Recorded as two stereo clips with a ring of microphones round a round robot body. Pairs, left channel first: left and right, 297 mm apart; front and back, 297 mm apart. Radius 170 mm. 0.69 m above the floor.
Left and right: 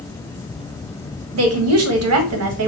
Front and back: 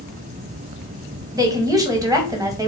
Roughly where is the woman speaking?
Right.